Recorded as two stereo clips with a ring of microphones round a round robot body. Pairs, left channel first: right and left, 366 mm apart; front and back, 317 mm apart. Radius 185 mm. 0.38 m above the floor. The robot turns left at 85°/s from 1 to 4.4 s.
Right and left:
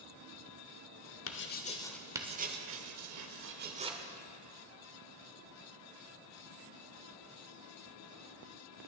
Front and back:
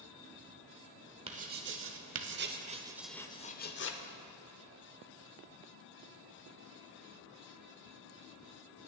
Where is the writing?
115° right, 1.0 m; by 4.0 s 10° left, 1.0 m.